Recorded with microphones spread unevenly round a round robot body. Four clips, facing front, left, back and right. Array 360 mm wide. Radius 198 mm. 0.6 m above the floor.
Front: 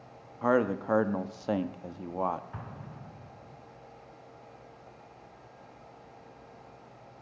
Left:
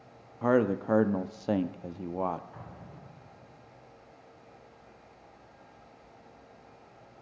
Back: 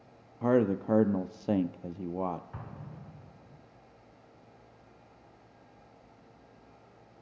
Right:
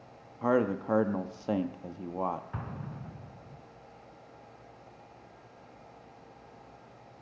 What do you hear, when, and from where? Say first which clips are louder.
0.4 s a man speaking: left 2 dB, even; 160° left, 0.7 m
2.5 s an explosion: right 6 dB, front 2 dB; 85° right, 1.7 m